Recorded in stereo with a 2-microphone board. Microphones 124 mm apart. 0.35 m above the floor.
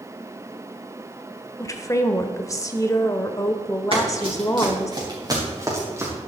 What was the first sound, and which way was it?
A woman speaking, 25° left (ahead or behind).